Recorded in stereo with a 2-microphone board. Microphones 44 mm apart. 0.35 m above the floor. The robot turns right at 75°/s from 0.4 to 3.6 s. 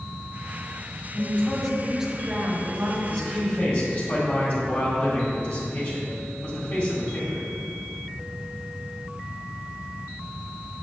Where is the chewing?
No chewing in this recording.